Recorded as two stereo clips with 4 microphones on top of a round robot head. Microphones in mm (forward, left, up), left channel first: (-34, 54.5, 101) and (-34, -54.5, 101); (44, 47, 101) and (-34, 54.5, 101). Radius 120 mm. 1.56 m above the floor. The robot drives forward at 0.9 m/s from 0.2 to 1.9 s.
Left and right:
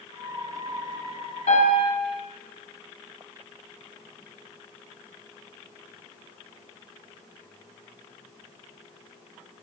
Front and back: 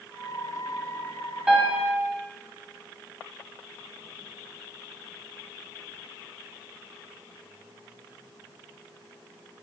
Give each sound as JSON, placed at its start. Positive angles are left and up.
{"t": 1.5, "sound": "a piano", "azimuth_deg": 95, "distance_m": 0.8}